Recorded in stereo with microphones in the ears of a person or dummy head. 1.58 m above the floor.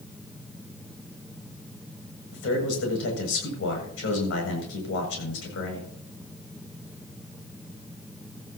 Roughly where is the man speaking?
Left.